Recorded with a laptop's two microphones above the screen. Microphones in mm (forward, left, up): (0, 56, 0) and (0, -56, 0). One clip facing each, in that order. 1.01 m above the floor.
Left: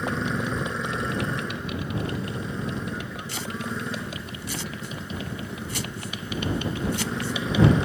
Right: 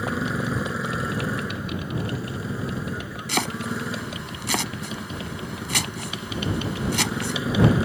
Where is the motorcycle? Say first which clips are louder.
Right 1 dB; 5° right (ahead or behind).